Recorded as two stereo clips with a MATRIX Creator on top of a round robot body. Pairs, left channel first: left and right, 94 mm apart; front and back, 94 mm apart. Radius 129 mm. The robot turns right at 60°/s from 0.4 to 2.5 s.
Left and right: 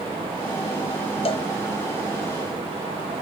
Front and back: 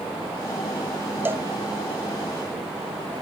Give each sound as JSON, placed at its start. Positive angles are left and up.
{"t": 1.2, "sound": "a cowbell", "azimuth_deg": 110, "distance_m": 0.8}